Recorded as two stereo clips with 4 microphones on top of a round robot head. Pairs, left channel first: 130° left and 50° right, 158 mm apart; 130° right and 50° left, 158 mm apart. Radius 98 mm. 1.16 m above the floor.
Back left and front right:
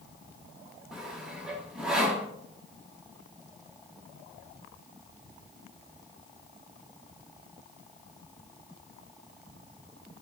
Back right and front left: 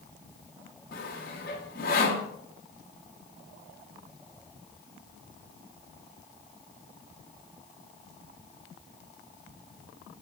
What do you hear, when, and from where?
0.9 s sawing: 135° right, 0.8 m